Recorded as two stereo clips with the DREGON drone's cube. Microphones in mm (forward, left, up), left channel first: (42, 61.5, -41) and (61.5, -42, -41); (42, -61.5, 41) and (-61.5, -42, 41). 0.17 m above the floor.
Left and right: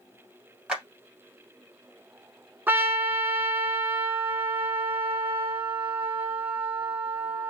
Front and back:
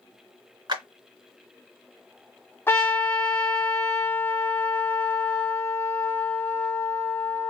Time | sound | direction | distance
0.7 | a clap | 155° right | 2 m
2.7 | a trumpet | 40° right | 0.9 m